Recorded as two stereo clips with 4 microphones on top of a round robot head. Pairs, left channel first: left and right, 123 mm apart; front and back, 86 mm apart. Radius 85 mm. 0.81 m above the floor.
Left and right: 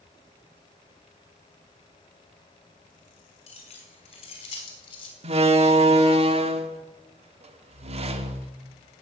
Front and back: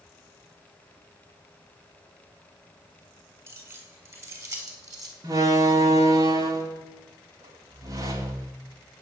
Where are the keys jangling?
125° left, 5.5 m; by 5.1 s 135° left, 3.5 m.